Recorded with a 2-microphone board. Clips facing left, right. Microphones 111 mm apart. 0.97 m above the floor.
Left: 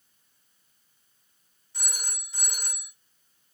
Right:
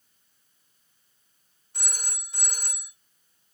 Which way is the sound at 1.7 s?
55° right (ahead or behind).